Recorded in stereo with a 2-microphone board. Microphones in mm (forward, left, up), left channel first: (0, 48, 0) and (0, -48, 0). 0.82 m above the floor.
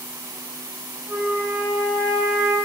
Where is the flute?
15° right (ahead or behind), 1.8 m.